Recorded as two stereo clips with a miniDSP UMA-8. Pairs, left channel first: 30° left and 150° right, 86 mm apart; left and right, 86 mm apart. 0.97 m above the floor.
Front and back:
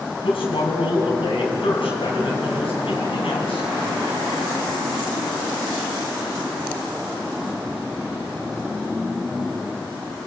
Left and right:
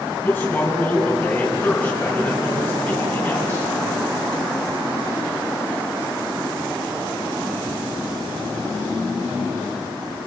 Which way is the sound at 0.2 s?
10° left.